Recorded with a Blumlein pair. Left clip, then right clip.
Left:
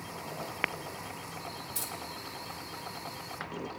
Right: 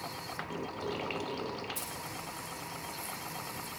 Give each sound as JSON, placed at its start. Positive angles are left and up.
{"t": 1.8, "sound": "keys jangling", "azimuth_deg": 25, "distance_m": 2.0}